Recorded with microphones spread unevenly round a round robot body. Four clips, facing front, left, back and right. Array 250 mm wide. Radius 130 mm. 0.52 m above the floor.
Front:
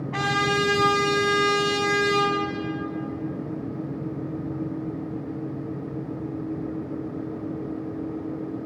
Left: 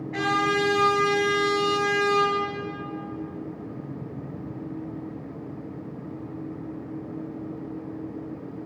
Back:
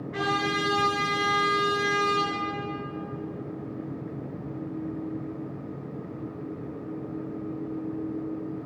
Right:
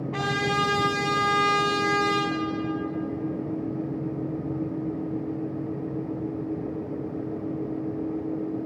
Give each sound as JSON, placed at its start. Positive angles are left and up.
{"t": 0.1, "sound": "a trumpet", "azimuth_deg": 25, "distance_m": 4.5}